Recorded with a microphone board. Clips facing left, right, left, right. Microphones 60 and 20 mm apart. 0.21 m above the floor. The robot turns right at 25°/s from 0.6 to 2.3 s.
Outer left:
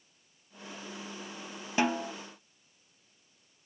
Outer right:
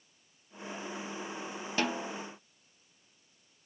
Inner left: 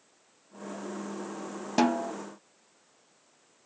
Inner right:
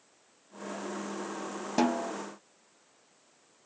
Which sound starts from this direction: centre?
A snare drum, at 1.8 s.